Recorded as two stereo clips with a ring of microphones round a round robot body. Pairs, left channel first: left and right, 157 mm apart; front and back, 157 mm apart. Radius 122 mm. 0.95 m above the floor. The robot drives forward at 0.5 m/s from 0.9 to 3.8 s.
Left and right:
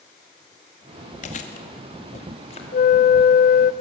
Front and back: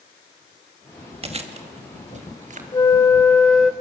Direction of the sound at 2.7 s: 65° left.